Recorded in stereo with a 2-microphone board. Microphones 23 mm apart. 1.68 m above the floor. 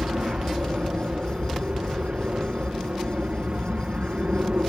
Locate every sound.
0.0 s an aircraft: 55° right (ahead or behind)